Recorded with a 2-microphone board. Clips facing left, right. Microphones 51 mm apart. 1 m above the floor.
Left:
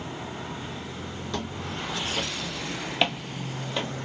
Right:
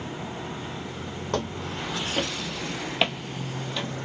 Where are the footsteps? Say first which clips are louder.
Right 4 dB; 45° right (ahead or behind), 1.4 m; by 3.9 s 25° left (ahead or behind), 1.1 m.